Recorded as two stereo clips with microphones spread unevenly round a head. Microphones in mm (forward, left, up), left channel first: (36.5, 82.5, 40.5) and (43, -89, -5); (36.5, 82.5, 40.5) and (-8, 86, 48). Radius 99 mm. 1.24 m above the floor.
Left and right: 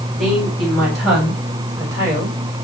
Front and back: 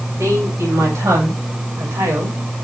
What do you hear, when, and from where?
0.2 s a woman speaking: straight behind, 8 m; by 2.4 s 160° right, 5.5 m